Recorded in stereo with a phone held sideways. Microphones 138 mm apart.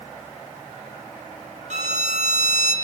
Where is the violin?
65° right (ahead or behind), 2 m.